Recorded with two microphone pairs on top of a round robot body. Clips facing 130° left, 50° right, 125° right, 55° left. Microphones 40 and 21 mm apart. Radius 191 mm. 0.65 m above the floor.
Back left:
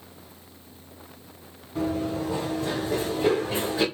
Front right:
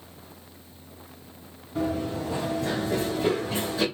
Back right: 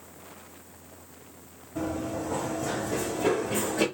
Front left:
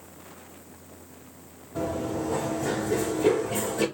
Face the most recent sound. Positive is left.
turn(degrees=-165)